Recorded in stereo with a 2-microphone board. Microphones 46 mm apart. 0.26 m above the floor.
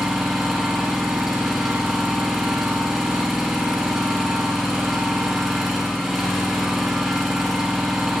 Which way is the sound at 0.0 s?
5° right (ahead or behind).